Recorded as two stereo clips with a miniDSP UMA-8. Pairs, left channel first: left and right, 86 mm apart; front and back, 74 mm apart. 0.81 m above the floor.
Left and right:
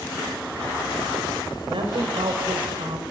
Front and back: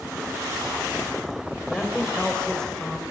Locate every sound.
1.7 s a woman speaking: 80° right, 4 m